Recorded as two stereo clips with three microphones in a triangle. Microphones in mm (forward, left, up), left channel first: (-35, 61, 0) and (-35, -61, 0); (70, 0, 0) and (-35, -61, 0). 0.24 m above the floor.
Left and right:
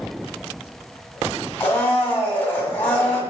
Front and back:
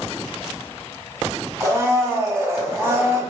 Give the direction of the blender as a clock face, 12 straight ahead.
7 o'clock.